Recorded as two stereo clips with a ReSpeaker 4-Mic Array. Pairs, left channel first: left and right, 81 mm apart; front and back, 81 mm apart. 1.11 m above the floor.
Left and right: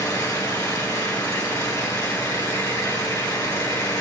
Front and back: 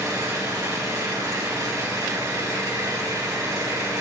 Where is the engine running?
140° left, 4.5 m.